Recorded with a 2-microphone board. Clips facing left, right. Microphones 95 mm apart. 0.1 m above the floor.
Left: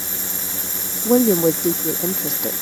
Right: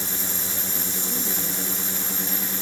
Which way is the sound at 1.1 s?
75° left (ahead or behind).